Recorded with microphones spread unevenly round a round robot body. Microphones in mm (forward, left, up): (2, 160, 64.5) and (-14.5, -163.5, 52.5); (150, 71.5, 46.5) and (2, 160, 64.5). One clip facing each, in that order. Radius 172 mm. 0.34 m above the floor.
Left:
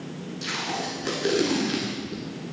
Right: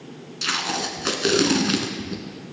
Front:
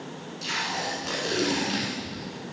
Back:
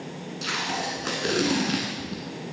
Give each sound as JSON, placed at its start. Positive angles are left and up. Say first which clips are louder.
{"t": 0.4, "sound": "tape being pulled", "louder": "right 4 dB, back 2 dB", "azimuth_deg": -155, "distance_m": 1.7}